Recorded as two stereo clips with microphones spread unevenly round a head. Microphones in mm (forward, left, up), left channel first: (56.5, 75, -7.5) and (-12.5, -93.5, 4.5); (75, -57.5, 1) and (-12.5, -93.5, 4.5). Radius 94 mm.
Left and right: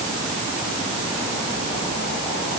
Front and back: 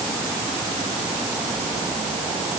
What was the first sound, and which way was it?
Only background noise.